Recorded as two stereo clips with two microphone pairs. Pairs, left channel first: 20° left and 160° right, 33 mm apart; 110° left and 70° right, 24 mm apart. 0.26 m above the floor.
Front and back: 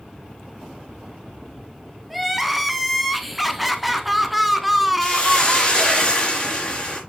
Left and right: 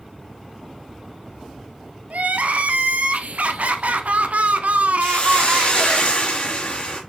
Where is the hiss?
70° left, 3 m.